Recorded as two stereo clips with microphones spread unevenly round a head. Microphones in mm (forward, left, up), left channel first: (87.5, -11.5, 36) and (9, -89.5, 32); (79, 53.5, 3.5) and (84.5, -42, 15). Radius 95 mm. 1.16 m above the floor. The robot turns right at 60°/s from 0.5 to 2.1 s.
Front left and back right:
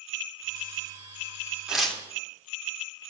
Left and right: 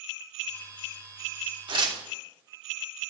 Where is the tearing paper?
50° right, 2.5 m; by 2.0 s 35° right, 2.5 m.